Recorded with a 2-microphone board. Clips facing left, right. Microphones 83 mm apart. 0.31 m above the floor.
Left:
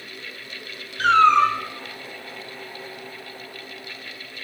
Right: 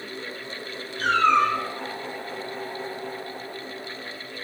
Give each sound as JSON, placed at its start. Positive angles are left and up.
{"t": 1.0, "sound": "a cat meowing", "side_deg": 85, "distance_m": 0.6}